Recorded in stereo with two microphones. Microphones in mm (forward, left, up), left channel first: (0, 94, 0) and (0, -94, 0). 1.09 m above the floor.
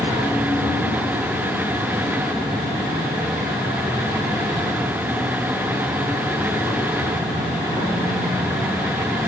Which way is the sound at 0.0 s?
5° left (ahead or behind).